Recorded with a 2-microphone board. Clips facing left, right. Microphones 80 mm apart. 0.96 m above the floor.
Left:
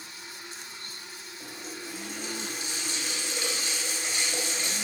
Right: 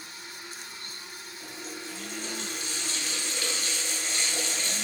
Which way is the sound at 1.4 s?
20° left (ahead or behind).